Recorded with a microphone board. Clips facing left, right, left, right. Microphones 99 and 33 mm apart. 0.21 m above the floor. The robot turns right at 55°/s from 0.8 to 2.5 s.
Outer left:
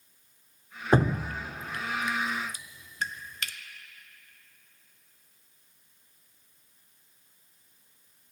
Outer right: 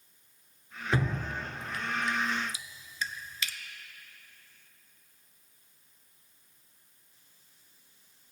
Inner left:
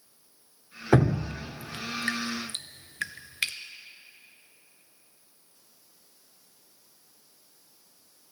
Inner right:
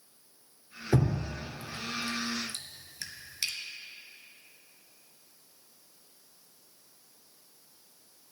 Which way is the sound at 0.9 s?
40° left (ahead or behind).